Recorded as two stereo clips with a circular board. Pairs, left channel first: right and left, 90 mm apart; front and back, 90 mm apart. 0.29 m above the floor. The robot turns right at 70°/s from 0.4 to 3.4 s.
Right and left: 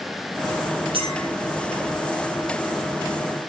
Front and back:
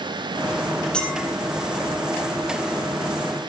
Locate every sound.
0.9 s a clink: 80° left, 7.5 m; by 1.2 s 100° left, 7.5 m